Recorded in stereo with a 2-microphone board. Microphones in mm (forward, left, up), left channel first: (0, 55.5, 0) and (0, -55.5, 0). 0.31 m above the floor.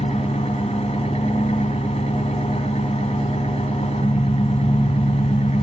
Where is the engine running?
70° left (ahead or behind), 2.5 m.